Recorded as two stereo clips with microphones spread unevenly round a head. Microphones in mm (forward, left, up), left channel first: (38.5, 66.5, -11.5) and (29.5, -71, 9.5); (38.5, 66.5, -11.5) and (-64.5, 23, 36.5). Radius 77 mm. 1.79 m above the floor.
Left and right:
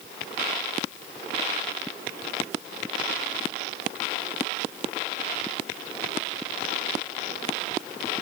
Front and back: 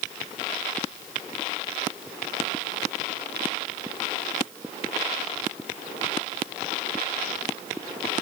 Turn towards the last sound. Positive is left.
No sound to turn to.